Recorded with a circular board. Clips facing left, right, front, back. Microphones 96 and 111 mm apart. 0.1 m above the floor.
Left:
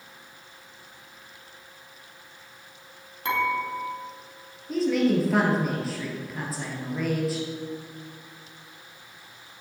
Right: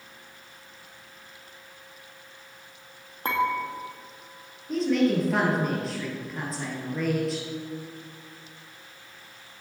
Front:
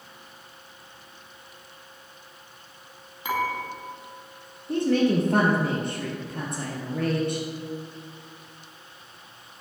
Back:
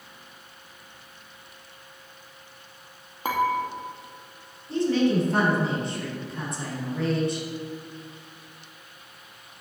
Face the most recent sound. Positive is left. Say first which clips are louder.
# even, front 1 dB
turn(degrees=0)